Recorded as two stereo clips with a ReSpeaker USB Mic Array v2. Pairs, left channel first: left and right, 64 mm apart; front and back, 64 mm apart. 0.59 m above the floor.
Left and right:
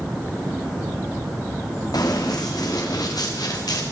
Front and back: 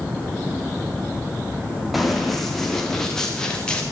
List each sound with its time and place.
1.9 s running footsteps: 90° left, 6.5 m; by 3.8 s 75° left, 5.5 m